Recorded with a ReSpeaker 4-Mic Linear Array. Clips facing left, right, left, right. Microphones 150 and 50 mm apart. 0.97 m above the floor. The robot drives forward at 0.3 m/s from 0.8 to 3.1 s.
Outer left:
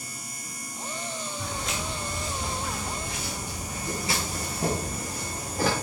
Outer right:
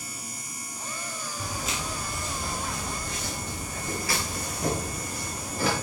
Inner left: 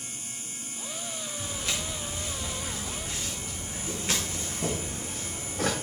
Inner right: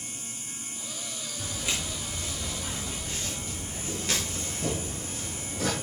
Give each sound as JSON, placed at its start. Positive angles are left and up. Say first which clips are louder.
{"t": 1.4, "sound": "footsteps", "louder": "outer right 1 dB, inner right 1 dB", "side_deg": -10, "distance_m": 4.0}